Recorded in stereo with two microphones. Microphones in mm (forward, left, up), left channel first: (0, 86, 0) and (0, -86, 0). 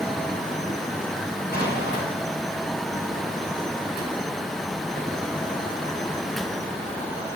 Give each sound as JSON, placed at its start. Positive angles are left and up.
{"t": 1.5, "sound": "an explosion", "side_deg": 65, "distance_m": 9.5}